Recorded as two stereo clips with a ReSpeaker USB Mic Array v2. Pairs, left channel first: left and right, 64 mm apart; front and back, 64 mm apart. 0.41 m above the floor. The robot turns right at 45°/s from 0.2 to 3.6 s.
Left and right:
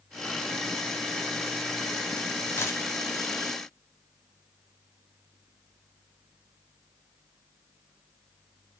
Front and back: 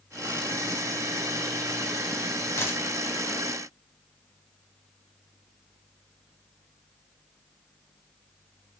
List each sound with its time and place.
2.6 s a dropped coin: 40° left, 0.8 m; by 2.8 s 55° left, 0.8 m